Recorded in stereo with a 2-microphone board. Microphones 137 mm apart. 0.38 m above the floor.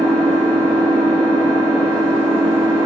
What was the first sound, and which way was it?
An engine running, 60° right (ahead or behind).